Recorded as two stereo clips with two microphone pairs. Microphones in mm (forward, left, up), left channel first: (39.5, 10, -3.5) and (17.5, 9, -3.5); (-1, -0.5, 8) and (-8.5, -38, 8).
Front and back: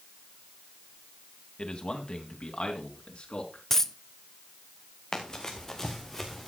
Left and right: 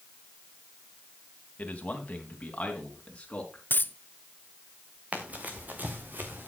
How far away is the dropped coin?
About 0.6 m.